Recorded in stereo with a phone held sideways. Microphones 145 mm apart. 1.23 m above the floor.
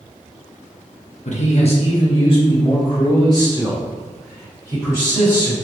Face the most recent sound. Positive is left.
turn(degrees=25)  # may be behind; listen again after turning